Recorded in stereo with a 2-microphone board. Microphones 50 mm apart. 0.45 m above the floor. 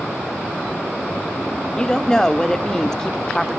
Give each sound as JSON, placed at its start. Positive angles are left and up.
{"t": 1.8, "sound": "a woman speaking", "side_deg": 15, "distance_m": 0.9}